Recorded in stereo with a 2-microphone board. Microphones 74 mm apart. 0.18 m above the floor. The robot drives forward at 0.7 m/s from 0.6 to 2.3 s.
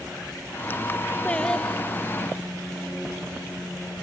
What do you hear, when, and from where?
1.2 s singing: 15° left (ahead or behind), 0.6 m; by 2.2 s 5° left (ahead or behind), 1.3 m